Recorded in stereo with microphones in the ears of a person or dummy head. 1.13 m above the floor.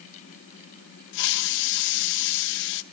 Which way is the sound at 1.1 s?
70° left (ahead or behind).